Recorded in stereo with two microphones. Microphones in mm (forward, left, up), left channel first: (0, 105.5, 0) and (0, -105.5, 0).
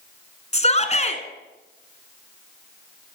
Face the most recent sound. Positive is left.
turn(degrees=30)  # may be behind; listen again after turning